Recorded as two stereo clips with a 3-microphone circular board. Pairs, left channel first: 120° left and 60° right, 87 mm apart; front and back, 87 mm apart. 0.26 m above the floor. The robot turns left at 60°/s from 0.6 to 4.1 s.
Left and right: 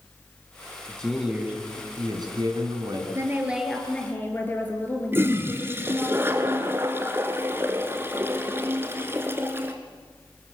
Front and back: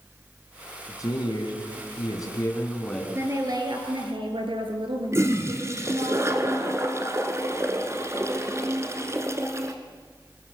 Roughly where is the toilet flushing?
Behind right.